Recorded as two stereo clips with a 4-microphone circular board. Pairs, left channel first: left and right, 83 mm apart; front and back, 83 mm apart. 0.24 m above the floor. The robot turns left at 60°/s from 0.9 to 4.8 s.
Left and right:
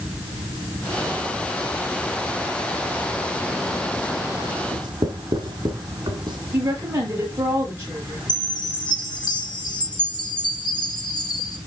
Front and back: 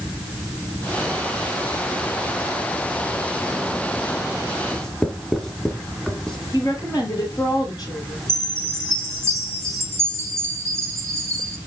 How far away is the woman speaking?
About 5.5 m.